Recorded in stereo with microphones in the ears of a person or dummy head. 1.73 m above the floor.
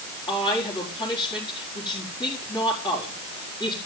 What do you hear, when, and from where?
0.3 s a woman speaking: 15° left (ahead or behind), 4.5 m